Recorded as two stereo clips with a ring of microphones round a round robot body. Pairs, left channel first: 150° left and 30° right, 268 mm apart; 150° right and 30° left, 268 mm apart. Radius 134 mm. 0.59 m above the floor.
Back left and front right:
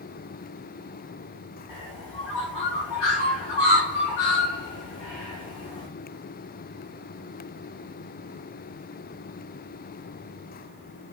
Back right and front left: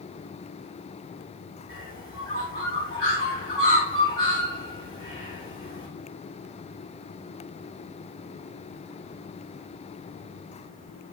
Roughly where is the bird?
Behind left.